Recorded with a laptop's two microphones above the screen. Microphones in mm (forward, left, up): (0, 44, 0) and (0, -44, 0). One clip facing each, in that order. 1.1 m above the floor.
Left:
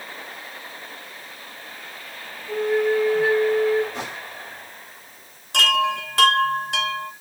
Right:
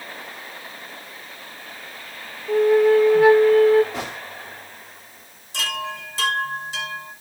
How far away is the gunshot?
About 3 m.